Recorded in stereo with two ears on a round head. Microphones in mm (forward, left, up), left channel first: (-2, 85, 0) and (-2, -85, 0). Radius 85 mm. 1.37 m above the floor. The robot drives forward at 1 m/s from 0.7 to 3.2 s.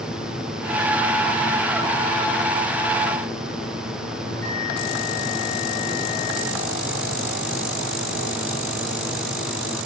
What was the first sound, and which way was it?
A bell, 40° right (ahead or behind).